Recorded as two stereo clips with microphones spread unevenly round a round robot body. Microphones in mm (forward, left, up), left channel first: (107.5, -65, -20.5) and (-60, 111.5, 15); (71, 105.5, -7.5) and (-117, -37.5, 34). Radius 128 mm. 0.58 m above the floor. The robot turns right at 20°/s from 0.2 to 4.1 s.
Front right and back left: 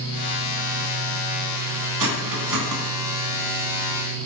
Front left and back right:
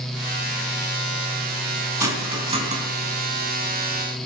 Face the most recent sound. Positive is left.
turn(degrees=180)